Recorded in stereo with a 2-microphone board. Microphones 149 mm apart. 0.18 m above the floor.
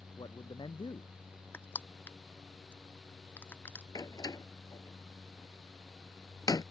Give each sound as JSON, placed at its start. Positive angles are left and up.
{"t": 0.2, "sound": "a man speaking", "side_deg": 30}
{"t": 1.5, "sound": "crushing", "side_deg": 15}
{"t": 4.0, "sound": "a door slam", "side_deg": 25}